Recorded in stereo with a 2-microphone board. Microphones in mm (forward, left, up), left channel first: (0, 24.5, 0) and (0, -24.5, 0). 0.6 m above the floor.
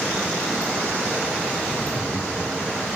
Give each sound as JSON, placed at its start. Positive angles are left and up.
{"t": 1.6, "sound": "laughter", "side_deg": 65, "distance_m": 5.5}